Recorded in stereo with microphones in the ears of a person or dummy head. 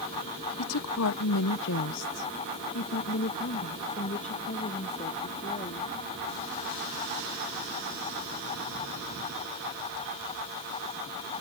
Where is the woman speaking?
85° left; by 5.9 s 20° left (ahead or behind).